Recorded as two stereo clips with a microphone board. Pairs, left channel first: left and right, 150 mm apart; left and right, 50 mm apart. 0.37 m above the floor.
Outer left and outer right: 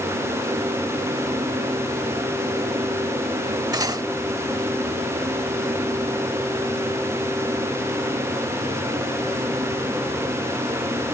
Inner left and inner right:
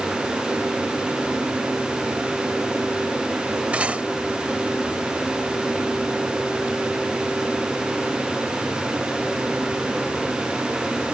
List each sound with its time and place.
3.7 s cutlery clinking: 25° right (ahead or behind)